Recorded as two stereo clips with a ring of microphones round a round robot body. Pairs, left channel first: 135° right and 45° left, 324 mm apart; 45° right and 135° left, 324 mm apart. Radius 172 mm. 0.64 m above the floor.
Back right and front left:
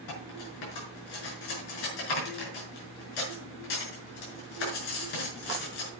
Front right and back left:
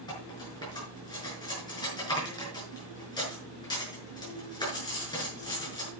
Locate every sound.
0.1 s cutlery clinking: 125° right, 5.5 m